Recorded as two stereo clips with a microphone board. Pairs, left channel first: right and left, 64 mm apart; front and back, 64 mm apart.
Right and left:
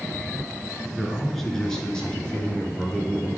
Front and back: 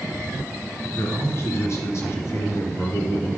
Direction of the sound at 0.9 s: Straight ahead.